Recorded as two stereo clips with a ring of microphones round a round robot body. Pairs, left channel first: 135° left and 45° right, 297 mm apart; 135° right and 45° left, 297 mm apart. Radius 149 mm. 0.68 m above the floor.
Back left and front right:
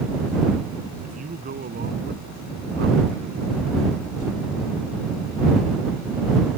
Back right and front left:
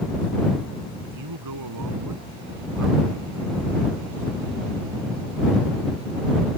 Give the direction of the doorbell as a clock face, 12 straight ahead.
No doorbell in this recording.